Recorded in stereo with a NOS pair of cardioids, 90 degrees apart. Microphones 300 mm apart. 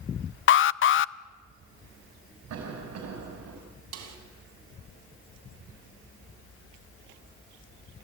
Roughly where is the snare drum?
Ahead right.